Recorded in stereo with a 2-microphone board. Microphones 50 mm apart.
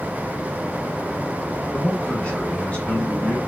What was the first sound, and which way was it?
A man speaking, 25° left (ahead or behind).